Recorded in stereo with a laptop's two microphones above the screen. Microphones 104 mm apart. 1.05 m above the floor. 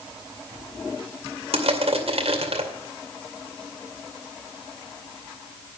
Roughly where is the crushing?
Right.